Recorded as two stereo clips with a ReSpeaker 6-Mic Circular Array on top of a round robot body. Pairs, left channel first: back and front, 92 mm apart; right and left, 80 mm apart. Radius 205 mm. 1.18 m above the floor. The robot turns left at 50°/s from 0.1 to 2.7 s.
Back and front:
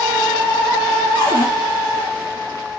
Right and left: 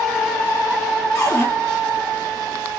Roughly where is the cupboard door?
Behind right.